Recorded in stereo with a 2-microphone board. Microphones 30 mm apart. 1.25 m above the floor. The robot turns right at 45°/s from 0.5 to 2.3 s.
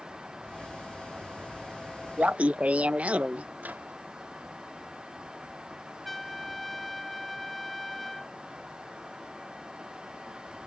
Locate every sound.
2.2 s laughter: 50° right (ahead or behind); by 3.5 s 45° right (ahead or behind)
3.6 s a microwave: 75° right (ahead or behind)
6.0 s a trumpet: 5° left (ahead or behind)